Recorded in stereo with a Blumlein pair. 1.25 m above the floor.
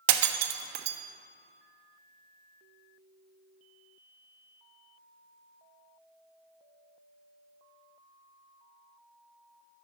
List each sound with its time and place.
0.1 s breaking glass: 50° right, 1.1 m